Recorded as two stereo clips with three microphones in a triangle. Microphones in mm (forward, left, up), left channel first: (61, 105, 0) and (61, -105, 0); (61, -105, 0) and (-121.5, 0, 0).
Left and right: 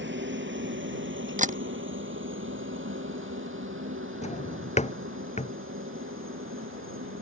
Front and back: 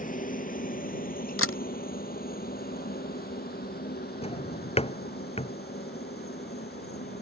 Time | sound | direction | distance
0.0 | a helicopter | 75° right | ?
1.4 | a camera shutter | 35° right | ?
4.2 | a drawer | 30° left | ?